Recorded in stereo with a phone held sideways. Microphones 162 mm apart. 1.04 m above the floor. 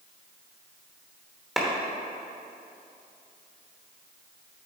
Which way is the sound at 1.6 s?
Centre (ahead or behind).